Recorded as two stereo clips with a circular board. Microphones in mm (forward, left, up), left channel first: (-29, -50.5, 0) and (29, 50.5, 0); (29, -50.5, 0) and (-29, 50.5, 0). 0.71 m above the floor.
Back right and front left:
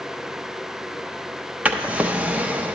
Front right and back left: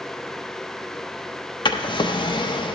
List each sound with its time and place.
1.6 s a drawer: 20° right, 0.5 m